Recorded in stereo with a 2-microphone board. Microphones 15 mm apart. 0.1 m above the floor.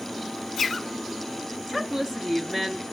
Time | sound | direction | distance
1.7 | a woman speaking | 25° right (ahead or behind) | 1.7 m